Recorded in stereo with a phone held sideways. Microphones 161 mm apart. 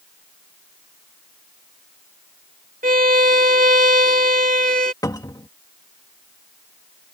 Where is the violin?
60° right (ahead or behind).